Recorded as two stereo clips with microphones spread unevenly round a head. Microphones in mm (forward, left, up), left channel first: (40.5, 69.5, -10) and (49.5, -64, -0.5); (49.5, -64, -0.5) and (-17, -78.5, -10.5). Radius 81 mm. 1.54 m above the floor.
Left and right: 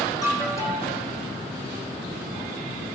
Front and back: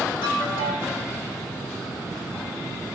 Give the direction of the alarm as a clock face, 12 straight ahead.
11 o'clock.